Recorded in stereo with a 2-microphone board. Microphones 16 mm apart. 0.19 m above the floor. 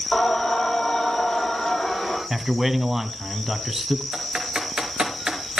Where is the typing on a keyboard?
60° right (ahead or behind), 3 m.